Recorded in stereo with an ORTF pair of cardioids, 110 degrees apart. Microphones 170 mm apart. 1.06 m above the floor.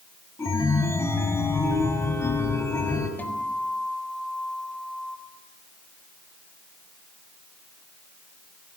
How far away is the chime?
About 4 m.